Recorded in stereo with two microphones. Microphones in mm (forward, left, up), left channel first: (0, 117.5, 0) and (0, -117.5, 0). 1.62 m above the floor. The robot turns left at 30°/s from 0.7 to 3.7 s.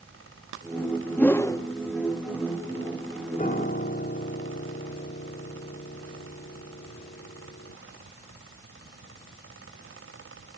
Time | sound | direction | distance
1.2 | a whoosh | 5° left (ahead or behind) | 0.9 m
3.4 | a piano | 35° left (ahead or behind) | 1.2 m